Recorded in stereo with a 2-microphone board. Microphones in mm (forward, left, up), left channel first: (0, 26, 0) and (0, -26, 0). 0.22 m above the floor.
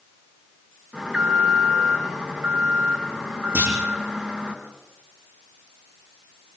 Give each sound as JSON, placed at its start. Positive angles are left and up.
{"t": 0.9, "sound": "an alarm", "side_deg": -20, "distance_m": 4.5}
{"t": 3.5, "sound": "a clunk", "side_deg": -45, "distance_m": 8.0}